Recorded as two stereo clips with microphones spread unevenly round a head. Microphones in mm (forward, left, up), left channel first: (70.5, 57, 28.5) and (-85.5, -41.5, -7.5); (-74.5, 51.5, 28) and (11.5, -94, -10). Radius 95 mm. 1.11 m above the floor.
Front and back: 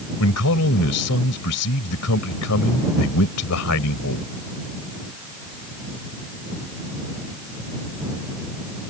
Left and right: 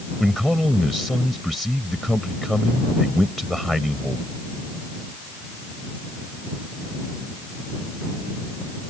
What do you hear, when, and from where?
0.2 s a man speaking: 35° left